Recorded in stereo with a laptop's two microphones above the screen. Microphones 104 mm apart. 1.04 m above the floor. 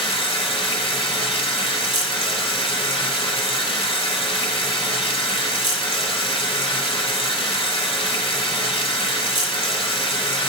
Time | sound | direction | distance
0.0 | running water | 65° left (ahead or behind) | 1.8 m